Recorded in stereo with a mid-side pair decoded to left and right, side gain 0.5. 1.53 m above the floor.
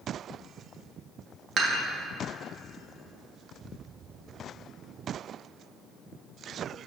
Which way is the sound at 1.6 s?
50° right.